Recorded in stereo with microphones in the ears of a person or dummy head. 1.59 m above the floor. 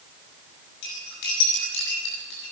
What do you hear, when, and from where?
0.8 s cutlery clinking: 65° left (ahead or behind), 8 m